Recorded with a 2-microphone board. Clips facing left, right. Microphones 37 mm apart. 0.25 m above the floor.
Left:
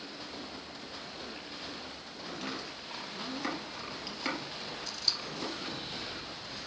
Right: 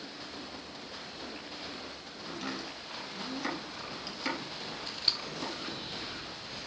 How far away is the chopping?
About 3 m.